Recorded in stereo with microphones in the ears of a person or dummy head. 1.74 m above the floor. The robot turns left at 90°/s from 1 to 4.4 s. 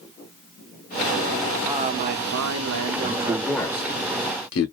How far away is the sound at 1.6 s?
About 0.6 m.